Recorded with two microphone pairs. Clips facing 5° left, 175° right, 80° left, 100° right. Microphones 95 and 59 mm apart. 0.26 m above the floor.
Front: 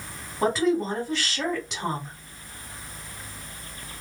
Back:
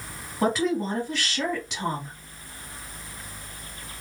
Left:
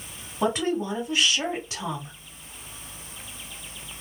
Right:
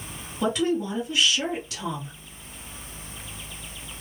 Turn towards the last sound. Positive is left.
turn(degrees=90)